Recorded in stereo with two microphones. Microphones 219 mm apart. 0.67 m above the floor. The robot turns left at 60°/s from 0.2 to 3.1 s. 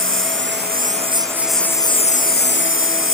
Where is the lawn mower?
100° right; by 3.1 s 85° left.